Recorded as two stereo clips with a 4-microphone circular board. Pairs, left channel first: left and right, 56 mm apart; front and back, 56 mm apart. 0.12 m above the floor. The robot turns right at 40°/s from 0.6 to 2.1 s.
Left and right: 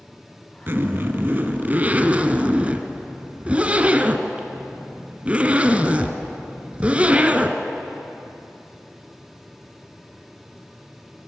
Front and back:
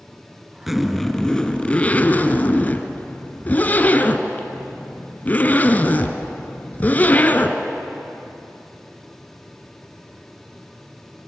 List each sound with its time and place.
0.7 s a zipper: 95° right, 1.5 m; by 7.6 s 40° right, 1.5 m